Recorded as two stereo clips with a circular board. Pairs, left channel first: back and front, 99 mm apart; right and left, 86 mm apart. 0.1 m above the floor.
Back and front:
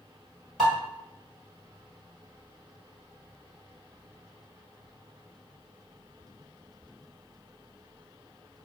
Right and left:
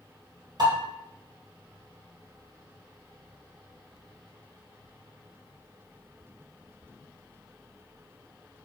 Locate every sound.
0.6 s dishes clattering: 90° left, 1.5 m